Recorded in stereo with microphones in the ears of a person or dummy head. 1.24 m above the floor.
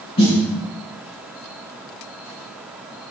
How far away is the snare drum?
About 5.5 m.